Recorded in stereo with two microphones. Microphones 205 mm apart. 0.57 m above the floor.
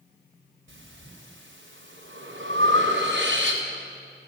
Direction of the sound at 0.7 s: 70° right (ahead or behind).